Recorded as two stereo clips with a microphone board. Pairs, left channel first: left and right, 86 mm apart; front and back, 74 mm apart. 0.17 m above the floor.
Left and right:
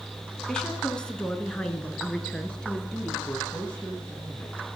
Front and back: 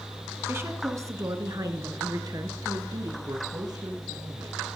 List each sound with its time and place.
0.5 s a woman speaking: 165° left, 1.2 m; by 3.2 s 170° left, 2.5 m
3.3 s a man speaking: 160° left, 2.5 m